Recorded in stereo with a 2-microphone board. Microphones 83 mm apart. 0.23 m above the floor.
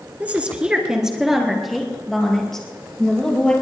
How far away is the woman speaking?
About 2.5 m.